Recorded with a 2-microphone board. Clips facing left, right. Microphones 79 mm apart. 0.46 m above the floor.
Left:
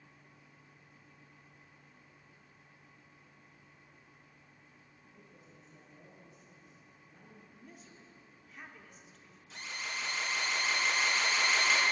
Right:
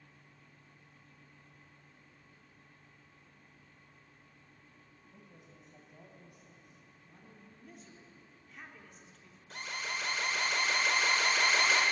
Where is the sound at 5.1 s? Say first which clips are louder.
Right 1 dB; 70° right (ahead or behind), 2.5 m; by 7.4 s 40° right (ahead or behind), 3.5 m.